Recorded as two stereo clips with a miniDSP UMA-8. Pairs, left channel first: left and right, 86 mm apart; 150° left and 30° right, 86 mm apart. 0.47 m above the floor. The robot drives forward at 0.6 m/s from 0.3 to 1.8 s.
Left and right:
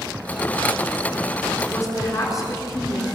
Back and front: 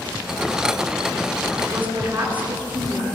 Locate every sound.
1.6 s a woman speaking: 40° left, 6 m